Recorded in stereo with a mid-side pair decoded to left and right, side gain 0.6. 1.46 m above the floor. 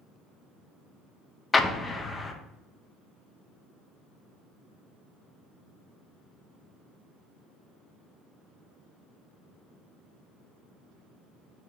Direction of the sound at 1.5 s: 20° left.